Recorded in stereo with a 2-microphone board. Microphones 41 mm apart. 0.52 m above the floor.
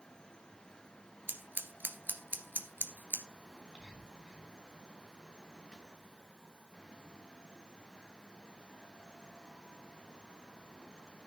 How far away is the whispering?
About 6.5 m.